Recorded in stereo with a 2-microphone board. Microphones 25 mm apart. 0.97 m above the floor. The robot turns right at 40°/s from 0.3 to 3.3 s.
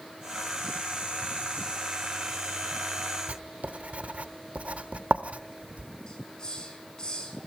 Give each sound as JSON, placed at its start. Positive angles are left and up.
{"t": 3.3, "sound": "writing", "side_deg": -65, "distance_m": 1.1}
{"t": 6.1, "sound": "a hiss", "side_deg": 35, "distance_m": 5.0}